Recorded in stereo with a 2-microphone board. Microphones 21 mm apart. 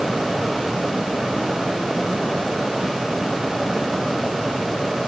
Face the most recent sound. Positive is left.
No sound to turn to.